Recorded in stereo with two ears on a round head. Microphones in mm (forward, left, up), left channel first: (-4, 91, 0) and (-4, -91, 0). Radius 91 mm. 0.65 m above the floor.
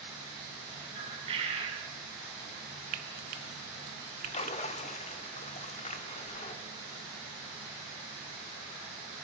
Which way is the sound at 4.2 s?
35° left (ahead or behind).